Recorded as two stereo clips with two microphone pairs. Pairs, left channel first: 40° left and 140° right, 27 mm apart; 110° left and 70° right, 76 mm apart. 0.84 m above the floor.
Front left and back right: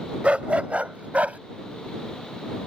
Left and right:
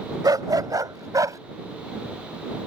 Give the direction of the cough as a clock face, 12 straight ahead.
No cough in this recording.